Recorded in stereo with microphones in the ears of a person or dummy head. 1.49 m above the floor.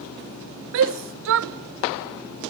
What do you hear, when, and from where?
0.7 s a shout: 70° right (ahead or behind), 0.6 m